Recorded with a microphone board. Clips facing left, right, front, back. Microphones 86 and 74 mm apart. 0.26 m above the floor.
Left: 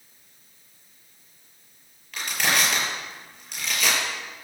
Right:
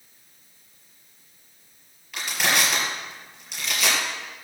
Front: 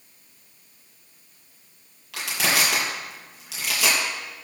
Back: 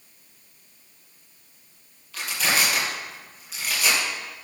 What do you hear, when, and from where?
2.1 s crushing: 5° right, 5.5 m